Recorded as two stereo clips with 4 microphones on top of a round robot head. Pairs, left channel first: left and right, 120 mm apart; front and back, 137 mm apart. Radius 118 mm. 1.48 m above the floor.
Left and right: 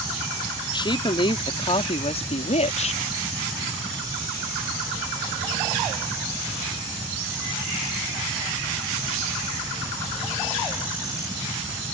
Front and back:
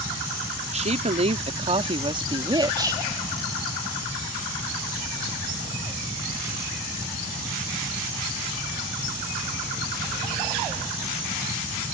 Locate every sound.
0.7 s a woman speaking: 140° left; by 3.1 s 115° left